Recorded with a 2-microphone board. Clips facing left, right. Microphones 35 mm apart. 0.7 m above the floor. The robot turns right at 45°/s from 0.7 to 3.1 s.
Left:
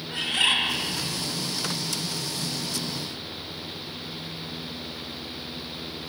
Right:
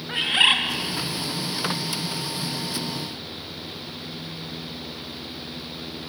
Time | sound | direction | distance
0.1 | a bird | 35° right (ahead or behind) | 0.8 m